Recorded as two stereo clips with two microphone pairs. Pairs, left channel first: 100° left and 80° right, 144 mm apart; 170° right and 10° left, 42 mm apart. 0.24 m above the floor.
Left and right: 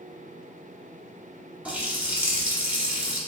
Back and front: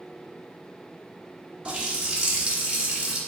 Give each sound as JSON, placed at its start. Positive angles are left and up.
{"t": 1.6, "sound": "a running tap", "azimuth_deg": -10, "distance_m": 0.7}